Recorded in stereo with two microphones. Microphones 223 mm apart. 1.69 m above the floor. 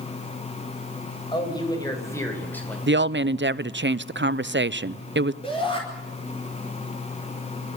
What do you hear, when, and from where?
1.3 s a man speaking: 20° left (ahead or behind), 7 m; by 2.8 s 5° left (ahead or behind), 5.5 m
2.9 s a woman speaking: 55° right (ahead or behind), 0.7 m
5.4 s a shout: 25° left (ahead or behind), 5 m